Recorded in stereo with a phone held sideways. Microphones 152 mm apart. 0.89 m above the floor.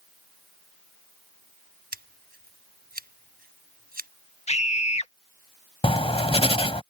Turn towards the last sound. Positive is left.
turn(degrees=40)  # may be behind; listen again after turning